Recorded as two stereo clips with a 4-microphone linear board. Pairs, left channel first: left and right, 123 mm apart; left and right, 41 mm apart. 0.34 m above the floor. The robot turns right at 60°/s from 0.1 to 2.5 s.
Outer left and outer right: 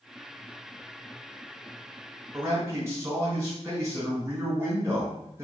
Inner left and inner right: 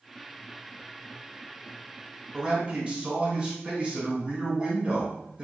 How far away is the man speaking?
About 1.2 m.